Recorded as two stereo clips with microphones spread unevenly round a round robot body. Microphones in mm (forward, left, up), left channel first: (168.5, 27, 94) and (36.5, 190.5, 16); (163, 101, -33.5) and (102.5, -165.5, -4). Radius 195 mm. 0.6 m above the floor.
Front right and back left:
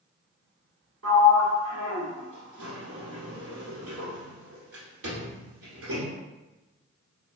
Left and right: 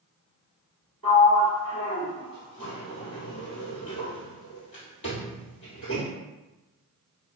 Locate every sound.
1.0 s a sliding door: 120° left, 1.4 m